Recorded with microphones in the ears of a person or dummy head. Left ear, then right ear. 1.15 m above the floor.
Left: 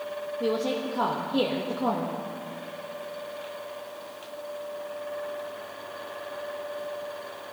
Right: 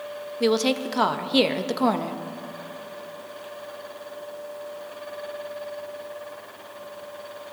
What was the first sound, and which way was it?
A woman speaking, 70° right (ahead or behind).